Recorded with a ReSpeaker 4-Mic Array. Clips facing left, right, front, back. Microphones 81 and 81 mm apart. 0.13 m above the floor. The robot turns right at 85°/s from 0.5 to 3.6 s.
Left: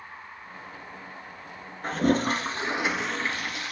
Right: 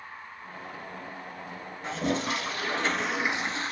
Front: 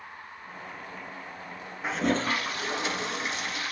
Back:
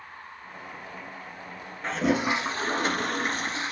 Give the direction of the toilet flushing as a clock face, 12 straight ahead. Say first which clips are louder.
Left 5 dB, back 2 dB; 9 o'clock.